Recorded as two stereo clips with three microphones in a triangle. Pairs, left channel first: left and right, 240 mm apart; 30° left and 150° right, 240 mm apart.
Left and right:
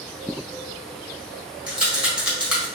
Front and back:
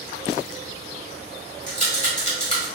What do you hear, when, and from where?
1.7 s a rattle: 5° right, 1.5 m